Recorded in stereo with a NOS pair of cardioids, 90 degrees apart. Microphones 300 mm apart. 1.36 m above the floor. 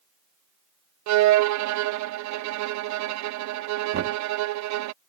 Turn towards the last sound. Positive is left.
turn(degrees=-50)